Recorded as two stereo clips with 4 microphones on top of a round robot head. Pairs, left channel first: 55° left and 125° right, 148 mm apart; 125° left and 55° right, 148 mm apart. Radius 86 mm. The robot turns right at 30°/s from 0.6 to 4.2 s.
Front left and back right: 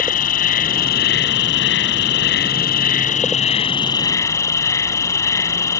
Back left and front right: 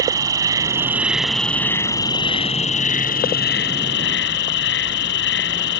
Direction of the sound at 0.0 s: 15° left.